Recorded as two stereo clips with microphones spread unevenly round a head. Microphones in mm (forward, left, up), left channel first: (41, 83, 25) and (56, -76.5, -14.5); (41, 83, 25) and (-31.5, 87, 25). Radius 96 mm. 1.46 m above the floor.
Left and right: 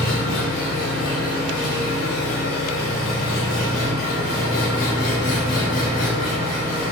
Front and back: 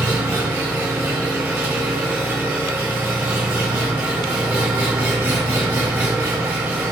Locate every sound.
0.0 s an engine running: 125° left, 5.5 m